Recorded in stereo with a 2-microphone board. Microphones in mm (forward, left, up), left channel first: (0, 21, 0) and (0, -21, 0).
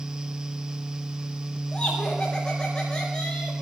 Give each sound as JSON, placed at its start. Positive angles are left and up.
{"t": 1.7, "sound": "laughter", "side_deg": 25, "distance_m": 3.5}